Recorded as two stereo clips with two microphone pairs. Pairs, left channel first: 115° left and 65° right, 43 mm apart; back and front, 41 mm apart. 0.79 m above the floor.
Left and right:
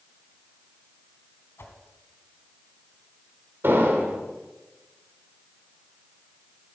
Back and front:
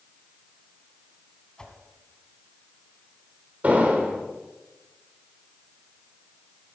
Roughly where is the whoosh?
Behind left.